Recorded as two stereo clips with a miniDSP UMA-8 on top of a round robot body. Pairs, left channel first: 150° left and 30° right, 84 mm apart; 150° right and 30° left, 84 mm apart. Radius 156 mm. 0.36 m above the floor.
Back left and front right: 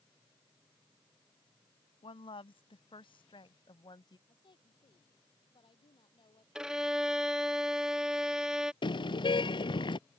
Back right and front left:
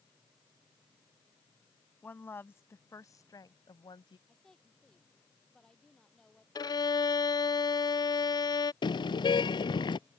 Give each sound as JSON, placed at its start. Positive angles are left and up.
{"t": 2.0, "sound": "a woman speaking", "azimuth_deg": 140}
{"t": 4.3, "sound": "a woman speaking", "azimuth_deg": 125}
{"t": 6.5, "sound": "a violin", "azimuth_deg": -110}
{"t": 8.8, "sound": "a car horn", "azimuth_deg": 180}